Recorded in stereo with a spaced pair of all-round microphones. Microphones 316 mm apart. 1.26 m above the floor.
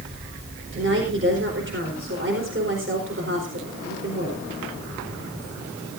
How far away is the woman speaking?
About 4 m.